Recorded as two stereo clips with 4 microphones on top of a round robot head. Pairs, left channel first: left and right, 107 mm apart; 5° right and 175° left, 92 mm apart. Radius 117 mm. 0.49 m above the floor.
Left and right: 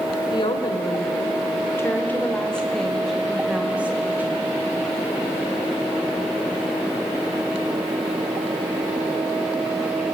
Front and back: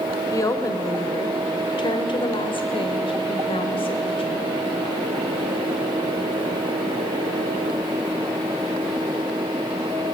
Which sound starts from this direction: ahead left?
A woman speaking, at 0.3 s.